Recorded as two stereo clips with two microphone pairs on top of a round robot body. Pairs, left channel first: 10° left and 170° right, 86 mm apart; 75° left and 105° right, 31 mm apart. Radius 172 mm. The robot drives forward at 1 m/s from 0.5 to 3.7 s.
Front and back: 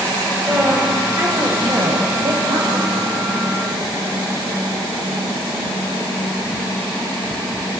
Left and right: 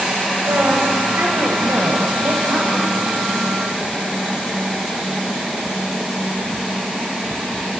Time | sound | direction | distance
0.4 | a woman speaking | 95° right | 3 m